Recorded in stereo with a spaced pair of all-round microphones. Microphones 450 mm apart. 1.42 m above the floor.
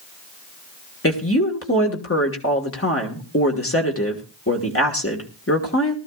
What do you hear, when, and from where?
1.0 s a woman speaking: 30° left (ahead or behind), 1.6 m